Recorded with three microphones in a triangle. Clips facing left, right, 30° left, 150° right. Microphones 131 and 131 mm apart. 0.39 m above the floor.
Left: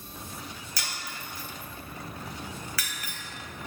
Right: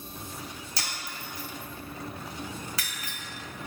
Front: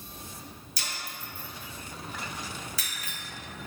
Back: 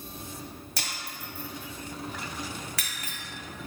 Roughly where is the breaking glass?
Behind right.